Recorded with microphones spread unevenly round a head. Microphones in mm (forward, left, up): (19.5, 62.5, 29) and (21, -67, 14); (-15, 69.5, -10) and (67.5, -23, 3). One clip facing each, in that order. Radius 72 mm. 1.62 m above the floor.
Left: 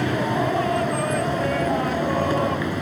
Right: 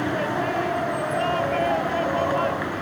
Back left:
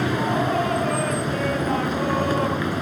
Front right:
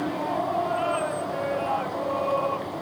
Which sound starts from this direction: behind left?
A vehicle, at 0.0 s.